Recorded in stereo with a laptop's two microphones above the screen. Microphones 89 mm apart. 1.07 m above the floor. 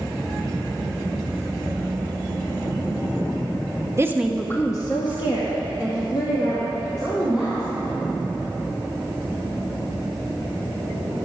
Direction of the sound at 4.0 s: 30° right (ahead or behind).